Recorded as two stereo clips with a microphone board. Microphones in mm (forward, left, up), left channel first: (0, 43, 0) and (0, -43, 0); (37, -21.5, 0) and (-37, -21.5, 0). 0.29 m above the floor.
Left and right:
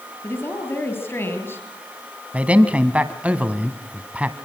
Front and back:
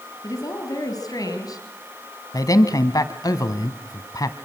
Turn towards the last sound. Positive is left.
turn(degrees=-20)